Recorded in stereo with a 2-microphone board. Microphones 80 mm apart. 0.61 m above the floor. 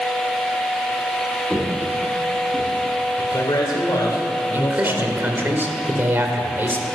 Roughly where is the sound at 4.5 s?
Right.